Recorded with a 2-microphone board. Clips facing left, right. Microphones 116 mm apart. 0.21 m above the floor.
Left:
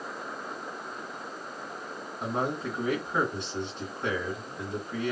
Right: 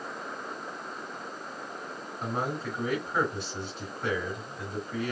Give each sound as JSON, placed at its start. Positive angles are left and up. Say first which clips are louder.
{"t": 2.2, "sound": "a man speaking", "louder": "left 2 dB", "side_deg": 15, "distance_m": 2.5}